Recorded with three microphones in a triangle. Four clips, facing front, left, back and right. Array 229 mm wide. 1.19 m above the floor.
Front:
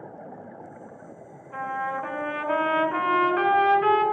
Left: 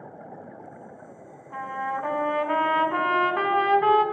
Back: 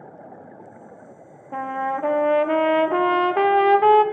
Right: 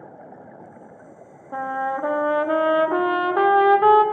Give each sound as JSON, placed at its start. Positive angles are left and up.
{"t": 1.5, "sound": "a trumpet", "azimuth_deg": -145, "distance_m": 0.7}